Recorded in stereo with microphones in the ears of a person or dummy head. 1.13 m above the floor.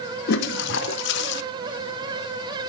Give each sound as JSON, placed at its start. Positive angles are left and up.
{"t": 0.3, "sound": "a toilet flushing", "side_deg": 60, "distance_m": 0.5}